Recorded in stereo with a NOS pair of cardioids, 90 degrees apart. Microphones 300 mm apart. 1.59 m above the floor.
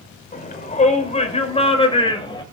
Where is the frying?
I don't hear frying.